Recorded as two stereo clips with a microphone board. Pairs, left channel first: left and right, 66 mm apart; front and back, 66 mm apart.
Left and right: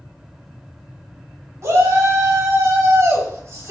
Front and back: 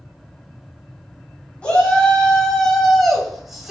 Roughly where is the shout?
Right.